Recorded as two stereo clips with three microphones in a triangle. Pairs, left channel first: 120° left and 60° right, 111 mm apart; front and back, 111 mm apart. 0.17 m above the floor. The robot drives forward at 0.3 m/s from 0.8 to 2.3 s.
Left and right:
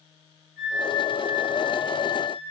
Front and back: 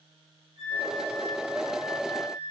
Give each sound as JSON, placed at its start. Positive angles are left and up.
{"t": 0.6, "sound": "a flute", "azimuth_deg": -160, "distance_m": 3.0}